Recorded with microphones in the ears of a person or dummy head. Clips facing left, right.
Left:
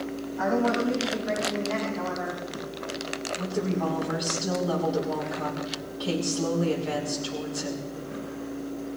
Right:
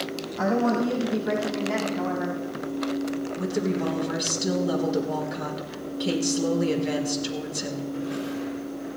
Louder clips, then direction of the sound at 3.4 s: Even; 30° right (ahead or behind).